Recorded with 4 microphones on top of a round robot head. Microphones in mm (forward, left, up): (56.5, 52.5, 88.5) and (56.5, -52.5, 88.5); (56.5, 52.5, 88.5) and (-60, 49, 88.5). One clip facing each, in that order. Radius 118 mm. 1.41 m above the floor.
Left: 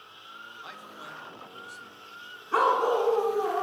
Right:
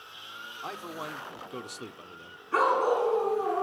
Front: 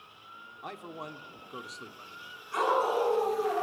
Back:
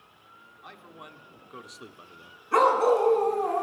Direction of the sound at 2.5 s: 155° left.